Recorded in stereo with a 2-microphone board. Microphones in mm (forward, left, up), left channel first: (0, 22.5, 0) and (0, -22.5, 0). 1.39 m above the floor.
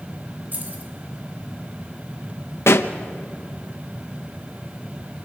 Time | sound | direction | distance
0.5 | keys jangling | 40° right (ahead or behind) | 3 m
2.7 | a pop | 65° left (ahead or behind) | 0.9 m